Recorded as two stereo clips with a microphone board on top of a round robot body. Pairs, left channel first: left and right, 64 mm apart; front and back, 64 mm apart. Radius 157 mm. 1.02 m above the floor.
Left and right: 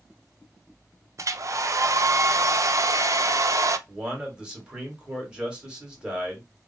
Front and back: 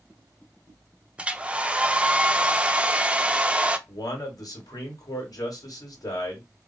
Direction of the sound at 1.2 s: 110° right.